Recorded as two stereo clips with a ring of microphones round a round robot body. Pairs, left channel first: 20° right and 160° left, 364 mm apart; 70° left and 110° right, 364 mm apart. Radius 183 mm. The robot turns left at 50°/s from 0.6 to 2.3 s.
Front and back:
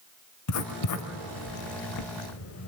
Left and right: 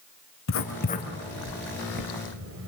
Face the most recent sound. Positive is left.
turn(degrees=-65)